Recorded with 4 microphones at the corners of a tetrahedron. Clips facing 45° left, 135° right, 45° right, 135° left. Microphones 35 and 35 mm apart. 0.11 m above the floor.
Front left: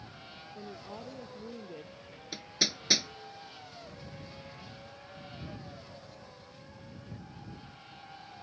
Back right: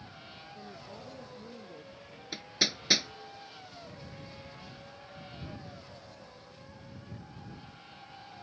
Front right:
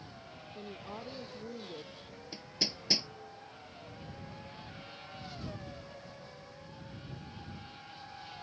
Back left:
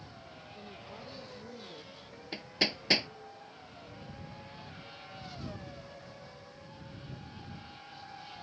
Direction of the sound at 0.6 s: Straight ahead.